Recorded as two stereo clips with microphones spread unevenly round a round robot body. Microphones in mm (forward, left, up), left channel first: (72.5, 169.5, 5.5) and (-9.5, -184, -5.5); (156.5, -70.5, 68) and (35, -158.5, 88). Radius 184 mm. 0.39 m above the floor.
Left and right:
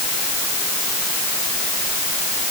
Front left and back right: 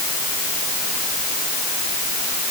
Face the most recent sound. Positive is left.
No sound to turn to.